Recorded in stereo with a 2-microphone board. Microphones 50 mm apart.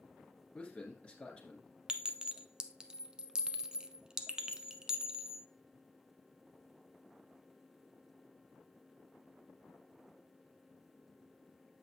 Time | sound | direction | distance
0.6 | a man speaking | 25° left (ahead or behind) | 1.7 m
1.9 | a clink | 15° right (ahead or behind) | 0.6 m